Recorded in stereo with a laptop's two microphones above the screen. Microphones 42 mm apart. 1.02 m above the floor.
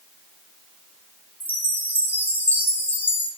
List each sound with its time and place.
1.4 s a chime: 50° left (ahead or behind), 4.5 m